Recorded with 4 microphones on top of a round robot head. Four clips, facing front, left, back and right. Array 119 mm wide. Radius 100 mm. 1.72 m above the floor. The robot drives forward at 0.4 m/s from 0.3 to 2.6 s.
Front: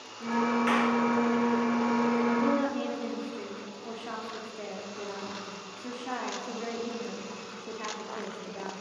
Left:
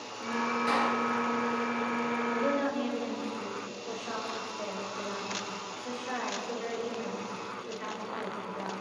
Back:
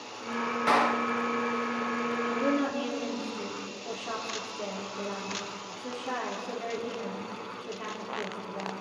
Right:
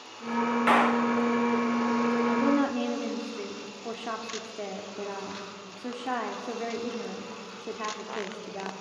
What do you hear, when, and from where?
0.7 s a clap: 115° right, 1.2 m; by 1.1 s 120° right, 1.2 m
2.3 s a woman speaking: 85° right, 4.5 m